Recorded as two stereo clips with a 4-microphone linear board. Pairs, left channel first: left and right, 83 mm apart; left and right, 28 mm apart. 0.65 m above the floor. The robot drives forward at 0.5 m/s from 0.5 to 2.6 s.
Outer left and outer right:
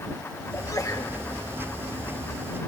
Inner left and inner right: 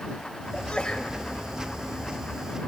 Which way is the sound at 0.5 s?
45° left (ahead or behind).